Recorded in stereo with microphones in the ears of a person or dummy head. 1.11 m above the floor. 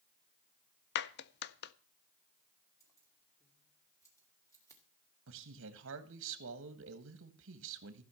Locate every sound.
0.9 s a clap: 55° left (ahead or behind), 0.6 m
2.8 s keys jangling: 15° left (ahead or behind), 2 m
5.3 s a man speaking: 65° right (ahead or behind), 1.4 m